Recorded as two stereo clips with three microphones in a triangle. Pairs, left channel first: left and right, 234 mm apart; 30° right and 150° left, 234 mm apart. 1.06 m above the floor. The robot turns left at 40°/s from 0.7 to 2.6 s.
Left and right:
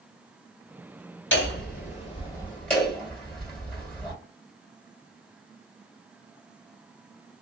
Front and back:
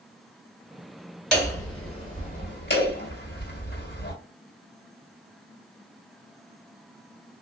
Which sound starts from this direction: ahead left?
Hammering, at 1.3 s.